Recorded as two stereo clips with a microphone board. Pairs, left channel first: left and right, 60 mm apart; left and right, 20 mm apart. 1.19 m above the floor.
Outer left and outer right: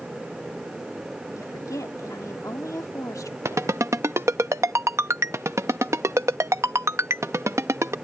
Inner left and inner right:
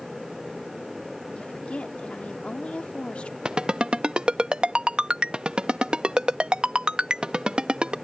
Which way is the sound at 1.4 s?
80° left.